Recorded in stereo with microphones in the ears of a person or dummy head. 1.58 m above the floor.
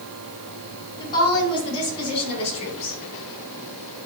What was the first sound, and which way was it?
A woman speaking, 20° left (ahead or behind).